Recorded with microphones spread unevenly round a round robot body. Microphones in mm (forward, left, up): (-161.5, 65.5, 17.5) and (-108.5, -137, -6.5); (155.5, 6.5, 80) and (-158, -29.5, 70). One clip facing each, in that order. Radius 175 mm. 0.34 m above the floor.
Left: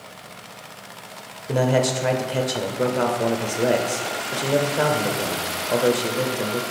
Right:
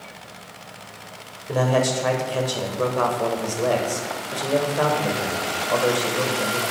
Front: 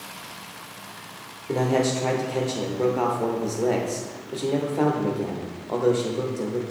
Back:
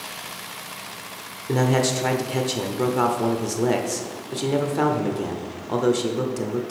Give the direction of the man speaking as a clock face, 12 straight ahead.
6 o'clock.